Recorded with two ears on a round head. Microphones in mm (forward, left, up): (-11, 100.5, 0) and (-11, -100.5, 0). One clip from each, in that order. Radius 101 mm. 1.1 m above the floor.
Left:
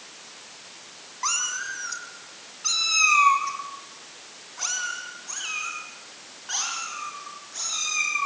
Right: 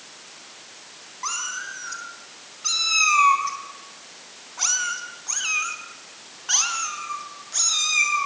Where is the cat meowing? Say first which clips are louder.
Left 2 dB; 20° left (ahead or behind), 4 m; by 8.2 s 50° right (ahead or behind), 7.5 m.